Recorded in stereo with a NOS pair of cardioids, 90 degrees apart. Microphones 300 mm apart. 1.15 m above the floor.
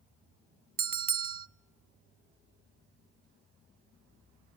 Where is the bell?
30° right, 0.6 m.